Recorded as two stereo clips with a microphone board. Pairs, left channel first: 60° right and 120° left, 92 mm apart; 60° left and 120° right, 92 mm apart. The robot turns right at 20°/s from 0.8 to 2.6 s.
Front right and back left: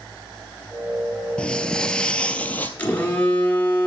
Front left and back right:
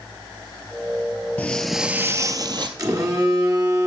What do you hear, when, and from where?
1.4 s footsteps: 5° left, 0.5 m; by 2.7 s 125° right, 0.8 m
2.8 s a phone buzzing: 125° right, 1.3 m